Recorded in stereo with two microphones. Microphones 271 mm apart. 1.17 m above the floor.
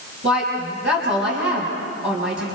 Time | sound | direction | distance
0.2 | a woman speaking | 45° right (ahead or behind) | 5.5 m